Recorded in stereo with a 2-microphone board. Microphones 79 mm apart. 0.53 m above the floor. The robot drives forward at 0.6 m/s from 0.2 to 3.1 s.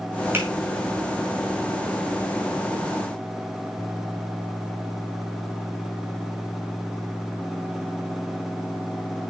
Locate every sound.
0.3 s a finger snap: 25° right (ahead or behind), 5 m